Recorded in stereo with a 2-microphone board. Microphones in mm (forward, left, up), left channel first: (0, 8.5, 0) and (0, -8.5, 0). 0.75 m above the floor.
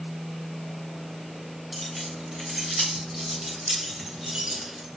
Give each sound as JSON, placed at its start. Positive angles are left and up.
{"t": 1.7, "sound": "keys jangling", "side_deg": -15, "distance_m": 3.0}